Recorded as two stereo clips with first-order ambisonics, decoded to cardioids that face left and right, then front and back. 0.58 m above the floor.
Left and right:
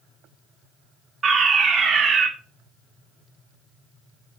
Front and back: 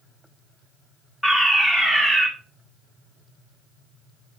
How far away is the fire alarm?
About 1.5 m.